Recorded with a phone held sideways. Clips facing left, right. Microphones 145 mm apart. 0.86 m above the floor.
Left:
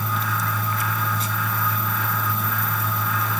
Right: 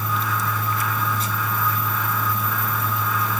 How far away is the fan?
About 1.5 m.